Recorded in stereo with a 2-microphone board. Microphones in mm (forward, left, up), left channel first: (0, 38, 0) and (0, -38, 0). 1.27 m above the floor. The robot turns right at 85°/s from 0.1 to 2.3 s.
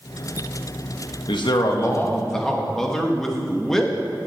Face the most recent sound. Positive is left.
turn(degrees=175)